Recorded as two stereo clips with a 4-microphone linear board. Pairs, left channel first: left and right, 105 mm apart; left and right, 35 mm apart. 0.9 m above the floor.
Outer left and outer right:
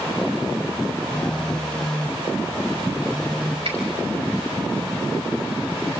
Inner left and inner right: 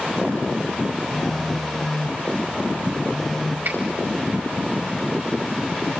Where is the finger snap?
75° right (ahead or behind), 5.5 m.